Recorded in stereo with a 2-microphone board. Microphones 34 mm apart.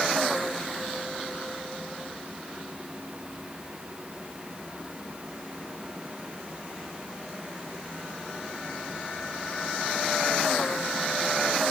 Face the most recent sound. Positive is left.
No sound to turn to.